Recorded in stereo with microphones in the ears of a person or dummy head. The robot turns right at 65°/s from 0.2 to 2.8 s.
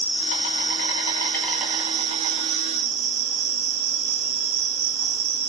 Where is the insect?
90° left, 2.5 m; by 5.5 s 105° right, 2.5 m.